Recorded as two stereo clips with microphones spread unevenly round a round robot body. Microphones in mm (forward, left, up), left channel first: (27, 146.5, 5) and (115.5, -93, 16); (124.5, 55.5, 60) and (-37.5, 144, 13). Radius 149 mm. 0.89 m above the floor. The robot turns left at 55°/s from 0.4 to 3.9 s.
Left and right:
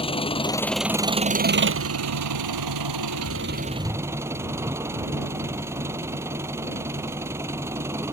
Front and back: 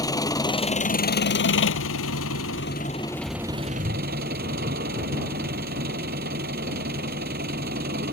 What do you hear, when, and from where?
0.0 s an engine running: 40° left; by 8.1 s 150° right